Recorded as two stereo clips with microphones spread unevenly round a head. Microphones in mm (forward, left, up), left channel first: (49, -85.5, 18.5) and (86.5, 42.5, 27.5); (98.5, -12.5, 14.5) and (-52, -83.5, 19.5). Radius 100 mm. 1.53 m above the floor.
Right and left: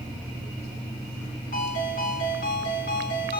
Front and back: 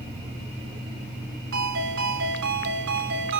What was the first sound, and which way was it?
A ringtone, 160° right.